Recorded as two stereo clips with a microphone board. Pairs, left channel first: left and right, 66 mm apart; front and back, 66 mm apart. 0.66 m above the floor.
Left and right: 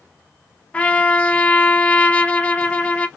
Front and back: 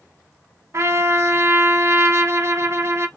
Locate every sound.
0.7 s a trumpet: 155° left, 0.7 m